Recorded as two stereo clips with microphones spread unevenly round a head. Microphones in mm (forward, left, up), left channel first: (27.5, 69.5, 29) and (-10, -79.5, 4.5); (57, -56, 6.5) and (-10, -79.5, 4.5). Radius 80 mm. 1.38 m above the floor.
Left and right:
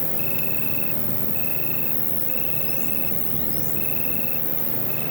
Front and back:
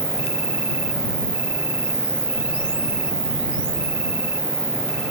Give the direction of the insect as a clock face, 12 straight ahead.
6 o'clock.